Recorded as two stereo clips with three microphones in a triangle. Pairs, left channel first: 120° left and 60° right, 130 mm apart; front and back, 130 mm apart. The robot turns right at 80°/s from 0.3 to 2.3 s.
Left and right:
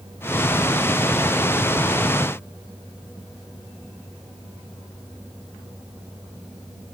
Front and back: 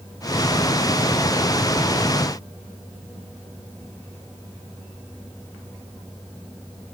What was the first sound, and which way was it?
Only background noise.